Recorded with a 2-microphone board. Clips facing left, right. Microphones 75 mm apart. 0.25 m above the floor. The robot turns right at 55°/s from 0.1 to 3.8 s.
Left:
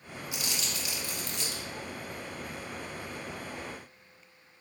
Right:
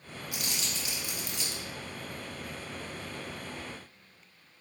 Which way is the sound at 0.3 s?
55° right (ahead or behind).